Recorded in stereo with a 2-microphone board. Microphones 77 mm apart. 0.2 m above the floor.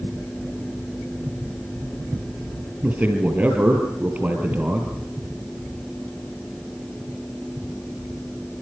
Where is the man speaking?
15° right (ahead or behind), 4.5 m.